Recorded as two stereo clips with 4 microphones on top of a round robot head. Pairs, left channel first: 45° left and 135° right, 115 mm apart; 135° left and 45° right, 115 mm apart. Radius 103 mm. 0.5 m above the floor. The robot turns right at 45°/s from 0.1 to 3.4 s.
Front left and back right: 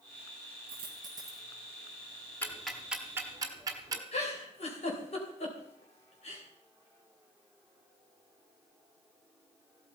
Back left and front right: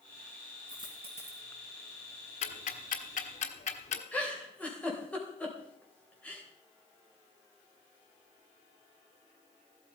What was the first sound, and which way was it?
A dropped coin, 100° right.